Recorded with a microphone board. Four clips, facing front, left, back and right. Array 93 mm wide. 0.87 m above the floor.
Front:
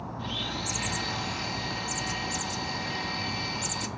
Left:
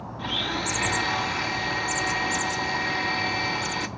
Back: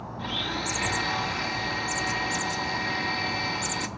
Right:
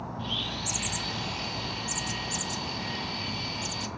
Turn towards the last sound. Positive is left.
turn(degrees=115)